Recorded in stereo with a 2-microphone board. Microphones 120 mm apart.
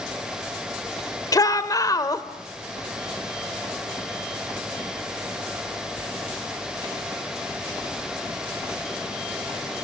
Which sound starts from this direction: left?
A shout, at 1.3 s.